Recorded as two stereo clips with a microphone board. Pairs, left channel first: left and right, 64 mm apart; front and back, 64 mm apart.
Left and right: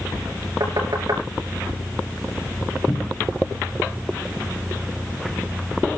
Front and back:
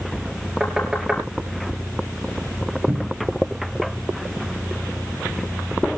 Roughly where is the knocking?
Right.